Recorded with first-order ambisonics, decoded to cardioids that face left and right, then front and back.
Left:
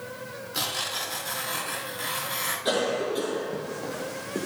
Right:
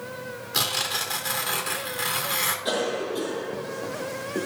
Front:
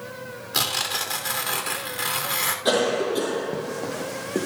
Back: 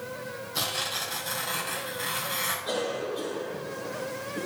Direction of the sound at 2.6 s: 5° left.